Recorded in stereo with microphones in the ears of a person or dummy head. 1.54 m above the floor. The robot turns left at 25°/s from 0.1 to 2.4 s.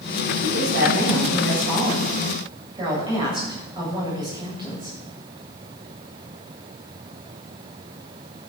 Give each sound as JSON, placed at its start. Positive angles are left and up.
{"t": 0.4, "sound": "a woman speaking", "azimuth_deg": -105, "distance_m": 9.0}